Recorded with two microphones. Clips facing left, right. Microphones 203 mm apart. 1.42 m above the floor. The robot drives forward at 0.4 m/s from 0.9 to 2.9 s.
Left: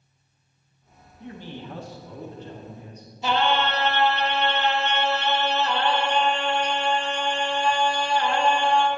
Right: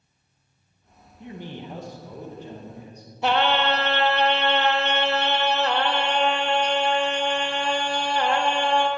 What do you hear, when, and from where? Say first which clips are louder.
1.2 s a man speaking: right 1 dB; 20° right (ahead or behind), 1.0 m; by 3.1 s 10° right (ahead or behind), 1.7 m
3.2 s singing: right 2 dB; 70° right (ahead or behind), 0.6 m